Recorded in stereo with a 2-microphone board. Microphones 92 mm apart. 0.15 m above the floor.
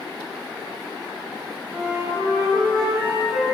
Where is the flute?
25° right (ahead or behind), 1.2 m.